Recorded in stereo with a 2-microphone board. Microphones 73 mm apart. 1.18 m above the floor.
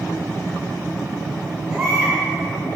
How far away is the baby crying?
About 6 m.